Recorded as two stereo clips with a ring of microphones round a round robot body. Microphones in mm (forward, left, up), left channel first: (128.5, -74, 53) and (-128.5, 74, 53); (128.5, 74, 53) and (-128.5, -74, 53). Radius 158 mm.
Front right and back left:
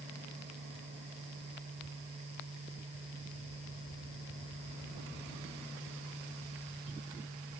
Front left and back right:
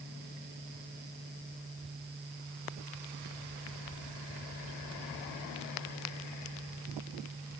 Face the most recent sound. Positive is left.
No sound to turn to.